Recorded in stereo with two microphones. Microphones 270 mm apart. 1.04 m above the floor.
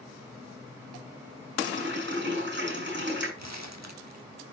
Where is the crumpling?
75° right (ahead or behind), 1.5 m.